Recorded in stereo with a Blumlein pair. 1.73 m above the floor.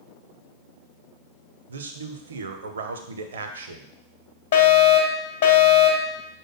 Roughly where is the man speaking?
Ahead right.